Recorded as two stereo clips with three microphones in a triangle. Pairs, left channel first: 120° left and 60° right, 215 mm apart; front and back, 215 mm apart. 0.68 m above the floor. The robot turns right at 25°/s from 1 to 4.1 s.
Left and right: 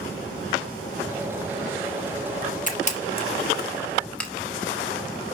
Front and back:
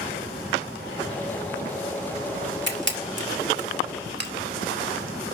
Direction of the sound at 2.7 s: 165° left.